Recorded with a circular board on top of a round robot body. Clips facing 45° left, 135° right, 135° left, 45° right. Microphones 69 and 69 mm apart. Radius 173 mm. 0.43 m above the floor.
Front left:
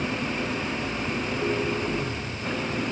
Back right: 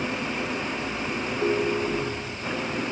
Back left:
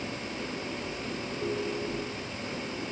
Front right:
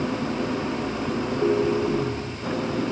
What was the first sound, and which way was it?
An engine running, 50° right.